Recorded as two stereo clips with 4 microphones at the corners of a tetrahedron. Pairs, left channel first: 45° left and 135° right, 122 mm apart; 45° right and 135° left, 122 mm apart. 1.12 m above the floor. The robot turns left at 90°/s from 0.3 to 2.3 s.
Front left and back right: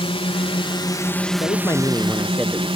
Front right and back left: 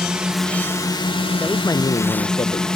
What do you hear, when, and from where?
0.0 s a drone: 55° left; by 2.8 s 125° right
1.4 s a man speaking: 25° left; by 2.7 s 55° right